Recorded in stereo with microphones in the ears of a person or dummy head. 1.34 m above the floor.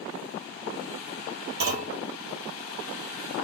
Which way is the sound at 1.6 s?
60° right (ahead or behind).